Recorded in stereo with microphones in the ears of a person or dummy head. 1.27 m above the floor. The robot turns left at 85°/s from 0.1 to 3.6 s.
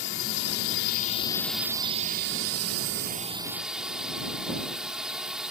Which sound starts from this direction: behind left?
A drone, at 0.0 s.